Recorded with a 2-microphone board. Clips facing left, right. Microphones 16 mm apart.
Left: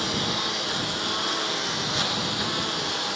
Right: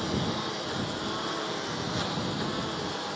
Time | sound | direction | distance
0.0 | a lawn mower | 45° left (ahead or behind) | ?